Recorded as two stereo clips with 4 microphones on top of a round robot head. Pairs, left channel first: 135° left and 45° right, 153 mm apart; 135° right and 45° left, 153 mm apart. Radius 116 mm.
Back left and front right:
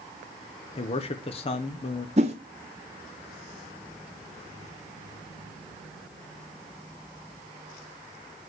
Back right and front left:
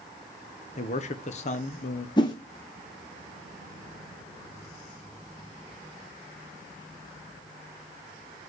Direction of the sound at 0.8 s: 175° right.